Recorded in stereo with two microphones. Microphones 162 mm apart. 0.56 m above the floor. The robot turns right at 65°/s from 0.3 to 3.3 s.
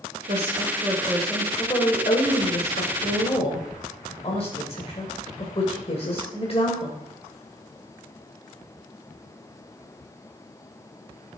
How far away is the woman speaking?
About 2.5 m.